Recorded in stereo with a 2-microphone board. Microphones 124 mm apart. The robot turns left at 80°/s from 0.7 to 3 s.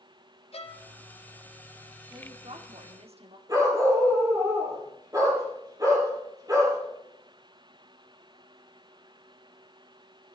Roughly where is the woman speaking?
Ahead right.